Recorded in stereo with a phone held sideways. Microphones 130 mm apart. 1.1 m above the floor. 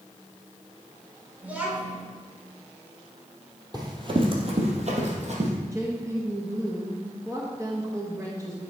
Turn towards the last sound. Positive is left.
turn(degrees=-25)  # may be behind; listen again after turning